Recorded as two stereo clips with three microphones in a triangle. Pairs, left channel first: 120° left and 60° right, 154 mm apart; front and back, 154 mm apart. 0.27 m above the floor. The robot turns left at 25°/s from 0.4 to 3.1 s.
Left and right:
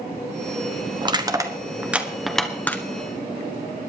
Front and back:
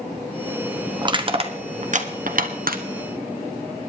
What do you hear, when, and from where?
1.0 s crushing: 120° right, 1.3 m; by 2.8 s 165° right, 1.3 m